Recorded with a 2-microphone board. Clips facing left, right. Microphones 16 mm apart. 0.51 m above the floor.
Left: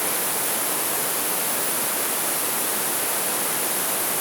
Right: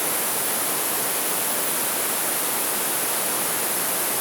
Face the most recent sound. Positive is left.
No sound to turn to.